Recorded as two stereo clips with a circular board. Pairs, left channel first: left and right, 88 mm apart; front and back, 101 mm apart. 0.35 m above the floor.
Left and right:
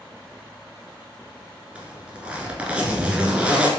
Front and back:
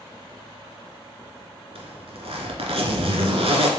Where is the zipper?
165° right, 1.3 m.